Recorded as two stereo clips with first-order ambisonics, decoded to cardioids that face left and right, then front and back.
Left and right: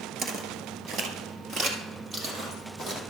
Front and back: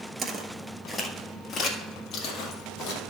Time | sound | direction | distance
0.2 | footsteps | 125° right | 1.2 m